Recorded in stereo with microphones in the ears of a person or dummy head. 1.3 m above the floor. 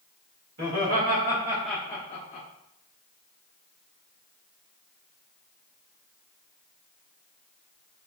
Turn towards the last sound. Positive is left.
turn(degrees=45)  # may be behind; listen again after turning